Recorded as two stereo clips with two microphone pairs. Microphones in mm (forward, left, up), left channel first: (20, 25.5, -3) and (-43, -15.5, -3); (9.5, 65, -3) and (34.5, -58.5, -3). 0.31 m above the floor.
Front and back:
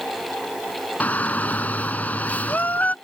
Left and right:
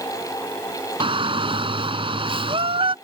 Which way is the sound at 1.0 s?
35° right.